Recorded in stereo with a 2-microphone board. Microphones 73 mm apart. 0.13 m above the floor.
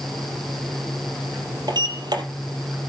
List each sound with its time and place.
1.7 s a sliding door: 65° right (ahead or behind), 3 m